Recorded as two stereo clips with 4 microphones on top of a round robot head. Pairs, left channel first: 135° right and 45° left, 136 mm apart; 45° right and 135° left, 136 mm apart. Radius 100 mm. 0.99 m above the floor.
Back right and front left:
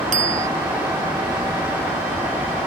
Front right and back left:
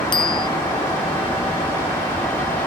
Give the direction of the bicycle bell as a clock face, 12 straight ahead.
12 o'clock.